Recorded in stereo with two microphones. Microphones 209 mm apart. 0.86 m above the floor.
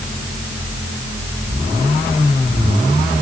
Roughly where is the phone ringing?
No phone ringing in this recording.